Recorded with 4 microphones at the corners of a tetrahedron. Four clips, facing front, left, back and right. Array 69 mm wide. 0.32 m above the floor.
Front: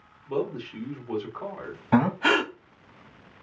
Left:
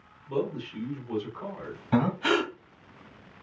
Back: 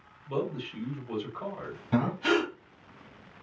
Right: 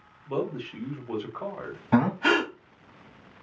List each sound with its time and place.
0.3 s a man speaking: 70° right, 1.4 m
1.9 s breathing: 35° right, 1.2 m